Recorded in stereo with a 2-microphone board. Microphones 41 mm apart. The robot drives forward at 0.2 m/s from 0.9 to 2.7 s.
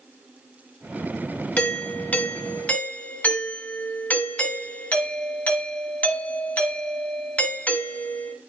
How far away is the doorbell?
About 2 m.